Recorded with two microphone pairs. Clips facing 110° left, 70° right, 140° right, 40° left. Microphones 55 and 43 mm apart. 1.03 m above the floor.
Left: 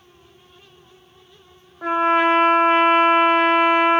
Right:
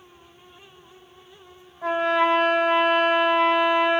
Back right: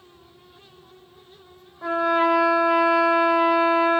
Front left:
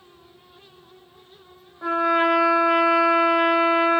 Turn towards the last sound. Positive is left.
turn(degrees=110)